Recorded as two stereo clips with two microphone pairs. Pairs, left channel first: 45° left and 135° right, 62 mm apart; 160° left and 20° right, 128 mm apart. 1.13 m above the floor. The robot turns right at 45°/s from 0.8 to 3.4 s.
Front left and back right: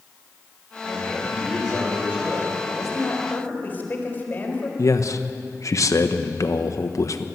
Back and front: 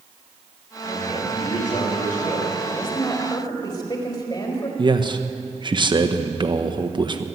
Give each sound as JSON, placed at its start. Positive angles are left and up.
{"t": 0.8, "sound": "a man speaking", "azimuth_deg": 105, "distance_m": 7.5}
{"t": 2.6, "sound": "a woman speaking", "azimuth_deg": 70, "distance_m": 4.5}
{"t": 4.8, "sound": "a man speaking", "azimuth_deg": 25, "distance_m": 1.1}